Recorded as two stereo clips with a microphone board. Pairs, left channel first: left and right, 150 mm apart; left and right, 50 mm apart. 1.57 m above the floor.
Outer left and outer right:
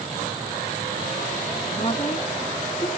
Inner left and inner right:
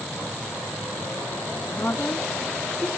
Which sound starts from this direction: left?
A woman speaking, at 1.6 s.